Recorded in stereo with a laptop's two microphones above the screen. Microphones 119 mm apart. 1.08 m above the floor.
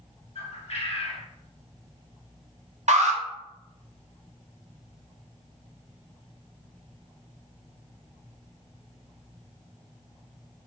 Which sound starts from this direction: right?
An alarm, at 2.9 s.